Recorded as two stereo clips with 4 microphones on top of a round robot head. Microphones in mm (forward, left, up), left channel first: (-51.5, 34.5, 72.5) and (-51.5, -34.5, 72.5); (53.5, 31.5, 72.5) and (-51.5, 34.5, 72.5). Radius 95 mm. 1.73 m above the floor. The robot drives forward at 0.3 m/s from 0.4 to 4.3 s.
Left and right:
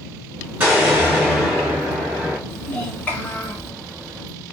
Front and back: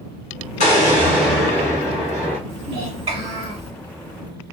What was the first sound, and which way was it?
An explosion, 20° right.